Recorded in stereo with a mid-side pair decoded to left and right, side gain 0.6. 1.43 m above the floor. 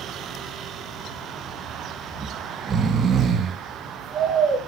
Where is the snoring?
35° right, 2 m.